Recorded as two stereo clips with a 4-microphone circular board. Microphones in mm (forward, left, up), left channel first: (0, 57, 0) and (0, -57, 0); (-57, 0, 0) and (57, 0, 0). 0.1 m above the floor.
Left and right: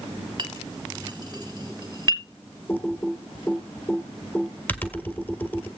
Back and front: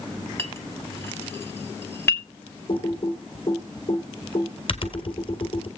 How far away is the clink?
About 1.3 m.